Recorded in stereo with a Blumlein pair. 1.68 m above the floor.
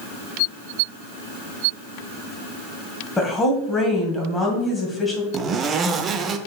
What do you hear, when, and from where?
3.2 s a woman speaking: 10° left, 2.0 m
5.3 s a zipper: 25° right, 0.6 m